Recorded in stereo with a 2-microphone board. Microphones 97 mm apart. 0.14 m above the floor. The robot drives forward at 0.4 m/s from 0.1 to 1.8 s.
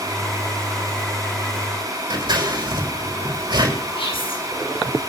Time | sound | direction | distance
2.1 | scissors | 50° right (ahead or behind) | 6 m
4.0 | whispering | 75° left (ahead or behind) | 8 m